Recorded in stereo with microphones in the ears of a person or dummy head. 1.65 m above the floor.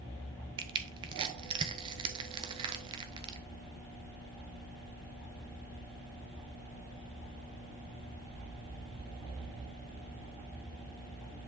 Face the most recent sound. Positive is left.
turn(degrees=-30)  # may be behind; listen again after turning